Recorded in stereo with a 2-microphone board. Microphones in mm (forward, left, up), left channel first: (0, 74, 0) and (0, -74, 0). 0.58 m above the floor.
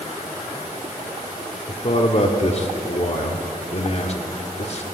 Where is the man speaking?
45° left (ahead or behind), 1.2 m.